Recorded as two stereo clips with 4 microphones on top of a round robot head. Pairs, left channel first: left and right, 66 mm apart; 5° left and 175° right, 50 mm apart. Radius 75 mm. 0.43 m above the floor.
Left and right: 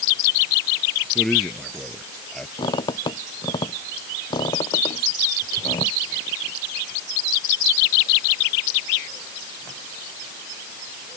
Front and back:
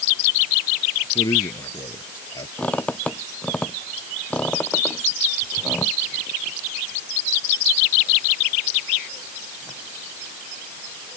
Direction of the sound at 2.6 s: 75° left.